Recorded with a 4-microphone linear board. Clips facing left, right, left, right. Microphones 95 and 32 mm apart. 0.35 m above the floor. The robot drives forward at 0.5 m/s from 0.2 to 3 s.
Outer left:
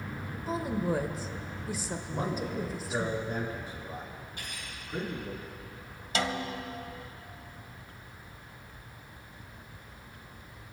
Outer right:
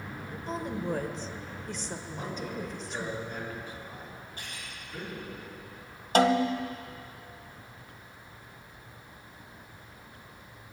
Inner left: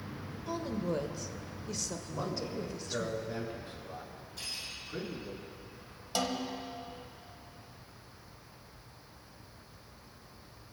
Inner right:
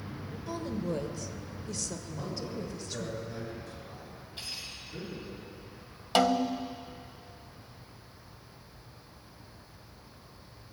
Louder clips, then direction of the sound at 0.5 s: Outer left 2 dB, even; 5° left (ahead or behind).